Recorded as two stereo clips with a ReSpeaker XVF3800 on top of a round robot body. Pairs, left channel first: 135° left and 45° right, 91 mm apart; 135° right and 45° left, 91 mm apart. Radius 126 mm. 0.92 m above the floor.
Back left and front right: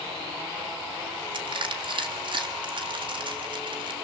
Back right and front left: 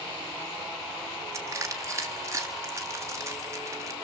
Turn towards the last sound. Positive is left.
turn(degrees=-15)